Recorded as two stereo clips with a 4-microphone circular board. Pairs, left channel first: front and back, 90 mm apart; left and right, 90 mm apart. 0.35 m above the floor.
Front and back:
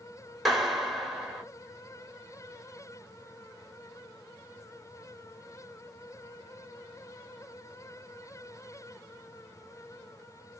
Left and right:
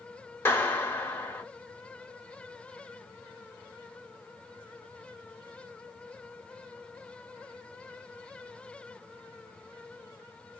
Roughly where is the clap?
Left.